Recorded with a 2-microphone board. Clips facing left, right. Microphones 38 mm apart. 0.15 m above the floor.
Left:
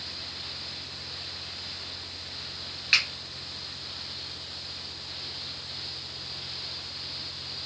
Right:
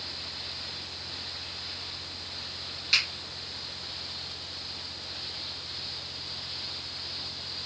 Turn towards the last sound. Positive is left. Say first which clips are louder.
# left 3 dB
turn(degrees=35)  # may be behind; listen again after turning